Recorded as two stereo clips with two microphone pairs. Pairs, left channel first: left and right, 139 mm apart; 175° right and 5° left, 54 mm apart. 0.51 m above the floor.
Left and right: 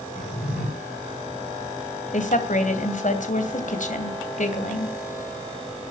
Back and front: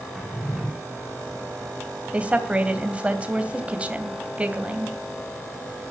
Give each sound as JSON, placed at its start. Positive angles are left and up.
{"t": 0.1, "sound": "a drawer", "azimuth_deg": 90, "distance_m": 7.5}
{"t": 2.1, "sound": "a woman speaking", "azimuth_deg": 75, "distance_m": 2.5}